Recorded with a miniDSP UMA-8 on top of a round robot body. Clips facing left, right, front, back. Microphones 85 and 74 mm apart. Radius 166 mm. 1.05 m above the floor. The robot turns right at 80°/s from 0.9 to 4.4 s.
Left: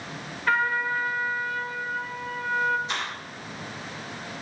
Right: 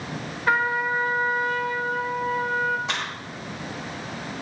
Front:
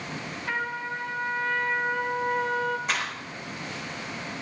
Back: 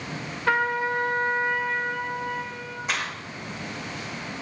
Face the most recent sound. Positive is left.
turn(degrees=30)